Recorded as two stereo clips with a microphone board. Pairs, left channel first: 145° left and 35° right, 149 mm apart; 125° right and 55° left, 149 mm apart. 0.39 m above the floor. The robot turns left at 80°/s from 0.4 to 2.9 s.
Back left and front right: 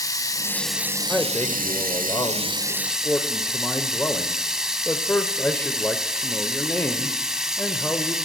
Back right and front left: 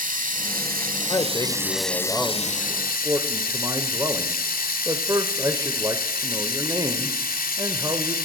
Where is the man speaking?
135° right, 0.9 m; by 8.2 s 80° left, 0.9 m.